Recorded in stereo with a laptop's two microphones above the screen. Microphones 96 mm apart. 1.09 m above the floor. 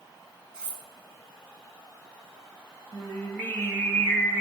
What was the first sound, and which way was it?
Cutlery clinking, 10° right (ahead or behind).